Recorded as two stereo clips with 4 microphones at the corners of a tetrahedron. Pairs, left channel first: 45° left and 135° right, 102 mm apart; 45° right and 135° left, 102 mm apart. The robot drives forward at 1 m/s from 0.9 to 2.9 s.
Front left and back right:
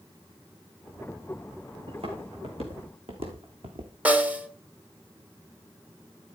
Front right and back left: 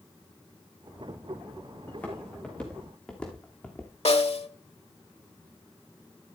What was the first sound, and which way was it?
Footsteps, 115° right.